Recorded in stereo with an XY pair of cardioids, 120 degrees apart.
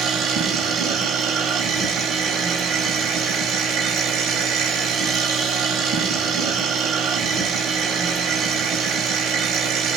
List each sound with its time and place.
0.0 s a machine running: 65° right, 0.8 m